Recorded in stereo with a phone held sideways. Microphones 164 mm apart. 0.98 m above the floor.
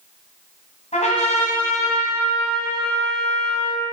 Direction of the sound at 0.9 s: 45° left (ahead or behind).